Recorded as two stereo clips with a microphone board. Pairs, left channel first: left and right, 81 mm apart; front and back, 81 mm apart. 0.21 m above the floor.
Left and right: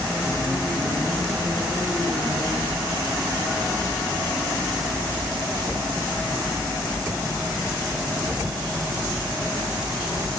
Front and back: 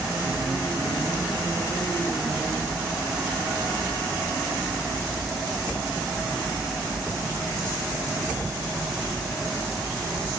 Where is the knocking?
I don't hear knocking.